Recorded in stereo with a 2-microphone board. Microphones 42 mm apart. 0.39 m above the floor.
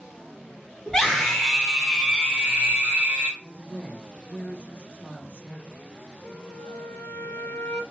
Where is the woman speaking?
35° left (ahead or behind), 1.3 m.